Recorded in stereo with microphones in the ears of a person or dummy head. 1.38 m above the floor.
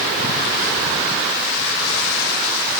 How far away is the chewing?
No chewing in this recording.